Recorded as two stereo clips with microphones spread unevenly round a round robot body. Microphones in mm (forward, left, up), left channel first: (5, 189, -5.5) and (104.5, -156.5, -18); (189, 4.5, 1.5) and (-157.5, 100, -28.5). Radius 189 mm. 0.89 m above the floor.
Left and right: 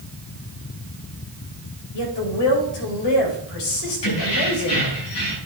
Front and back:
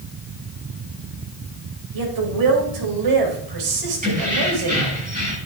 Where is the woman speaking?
135° left, 3.5 m.